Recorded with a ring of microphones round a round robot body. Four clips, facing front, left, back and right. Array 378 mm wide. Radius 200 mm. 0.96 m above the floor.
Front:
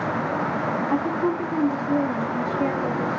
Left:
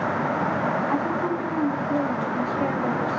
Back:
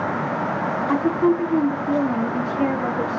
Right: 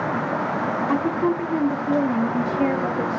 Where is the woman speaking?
145° right, 1.2 m.